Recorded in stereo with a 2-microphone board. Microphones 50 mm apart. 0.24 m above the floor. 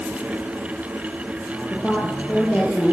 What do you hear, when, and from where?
1.7 s a woman speaking: 25° left (ahead or behind), 6.5 m